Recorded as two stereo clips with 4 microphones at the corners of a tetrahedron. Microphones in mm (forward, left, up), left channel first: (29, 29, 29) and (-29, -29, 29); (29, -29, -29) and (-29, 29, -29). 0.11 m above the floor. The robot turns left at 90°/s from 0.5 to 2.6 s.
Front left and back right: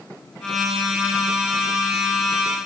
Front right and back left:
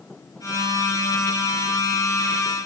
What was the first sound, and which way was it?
Only background noise.